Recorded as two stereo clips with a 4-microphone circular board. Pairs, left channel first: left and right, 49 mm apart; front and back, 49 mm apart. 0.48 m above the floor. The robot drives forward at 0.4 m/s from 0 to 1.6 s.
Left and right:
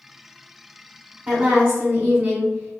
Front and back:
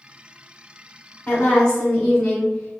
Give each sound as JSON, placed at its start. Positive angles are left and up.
{"t": 1.3, "sound": "a woman speaking", "azimuth_deg": -55, "distance_m": 0.9}